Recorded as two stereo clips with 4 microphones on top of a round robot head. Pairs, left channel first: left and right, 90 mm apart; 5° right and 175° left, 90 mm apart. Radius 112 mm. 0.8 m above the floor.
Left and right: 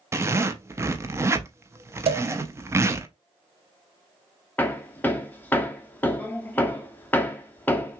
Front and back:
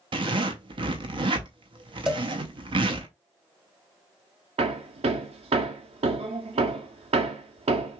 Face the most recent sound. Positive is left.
turn(degrees=160)